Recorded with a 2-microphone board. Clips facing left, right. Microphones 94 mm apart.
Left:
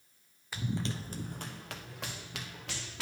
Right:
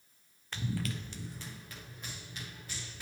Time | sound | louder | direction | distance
0.5 | running footsteps | left 1 dB | 5° left (ahead or behind) | 0.6 m